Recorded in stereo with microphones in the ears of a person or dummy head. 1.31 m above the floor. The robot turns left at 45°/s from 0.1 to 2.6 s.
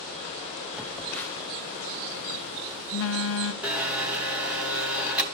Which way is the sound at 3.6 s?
10° right (ahead or behind).